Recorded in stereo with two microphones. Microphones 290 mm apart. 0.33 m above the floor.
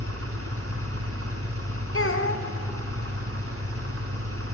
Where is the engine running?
60° right (ahead or behind), 3 m.